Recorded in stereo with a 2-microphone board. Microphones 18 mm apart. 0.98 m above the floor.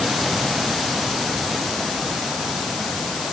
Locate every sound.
Only background noise.